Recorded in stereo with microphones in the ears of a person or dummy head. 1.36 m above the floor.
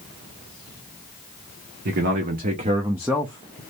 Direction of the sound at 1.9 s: 55° right (ahead or behind).